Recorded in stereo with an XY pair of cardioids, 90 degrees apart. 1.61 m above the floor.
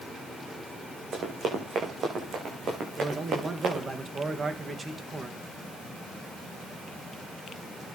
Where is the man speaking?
40° right, 2 m.